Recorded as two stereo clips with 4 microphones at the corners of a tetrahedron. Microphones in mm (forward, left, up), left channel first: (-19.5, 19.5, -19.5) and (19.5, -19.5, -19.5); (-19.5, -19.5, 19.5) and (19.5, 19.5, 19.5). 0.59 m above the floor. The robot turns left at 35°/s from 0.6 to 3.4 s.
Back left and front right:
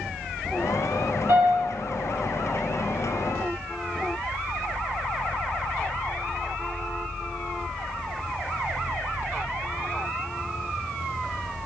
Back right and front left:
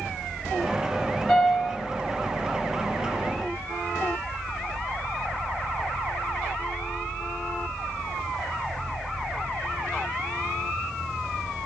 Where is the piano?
60° right, 1.6 m; by 1.8 s 75° right, 1.6 m.